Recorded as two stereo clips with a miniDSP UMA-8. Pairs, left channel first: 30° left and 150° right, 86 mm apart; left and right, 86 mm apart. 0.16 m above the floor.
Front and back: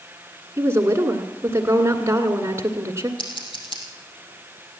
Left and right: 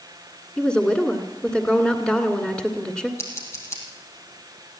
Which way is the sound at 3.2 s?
35° left.